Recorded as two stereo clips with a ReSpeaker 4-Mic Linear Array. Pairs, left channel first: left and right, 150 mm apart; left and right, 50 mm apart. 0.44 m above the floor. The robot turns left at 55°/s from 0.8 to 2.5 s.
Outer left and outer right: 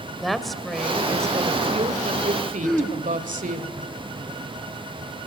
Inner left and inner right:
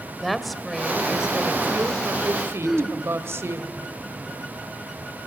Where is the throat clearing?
5° left (ahead or behind), 5 m.